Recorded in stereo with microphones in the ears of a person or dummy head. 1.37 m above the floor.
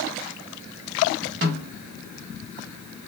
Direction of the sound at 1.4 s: 45° right (ahead or behind).